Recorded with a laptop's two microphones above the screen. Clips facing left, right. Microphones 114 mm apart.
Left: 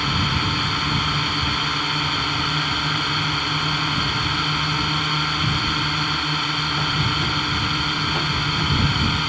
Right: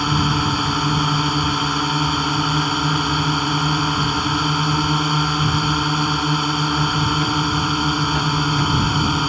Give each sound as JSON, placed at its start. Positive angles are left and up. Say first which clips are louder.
{"t": 0.0, "sound": "a drone", "louder": "right 5 dB", "side_deg": -30}